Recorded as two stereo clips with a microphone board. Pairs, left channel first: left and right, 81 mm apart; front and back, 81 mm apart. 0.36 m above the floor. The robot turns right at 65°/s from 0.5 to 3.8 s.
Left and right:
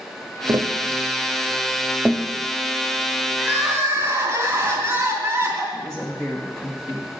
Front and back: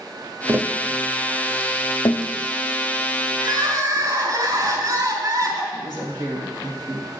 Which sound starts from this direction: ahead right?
A woman speaking, at 5.7 s.